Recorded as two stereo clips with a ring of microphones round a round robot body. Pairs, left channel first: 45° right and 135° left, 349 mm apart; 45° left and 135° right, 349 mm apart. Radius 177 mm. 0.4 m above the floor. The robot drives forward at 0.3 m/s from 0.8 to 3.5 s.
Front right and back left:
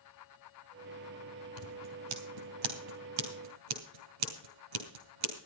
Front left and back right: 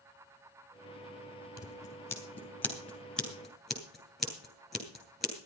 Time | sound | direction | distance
1.6 | scissors | 125° left | 2.5 m